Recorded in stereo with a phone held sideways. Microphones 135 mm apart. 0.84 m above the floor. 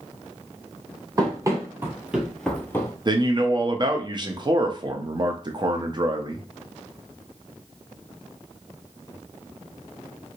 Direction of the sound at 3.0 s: 35° right (ahead or behind).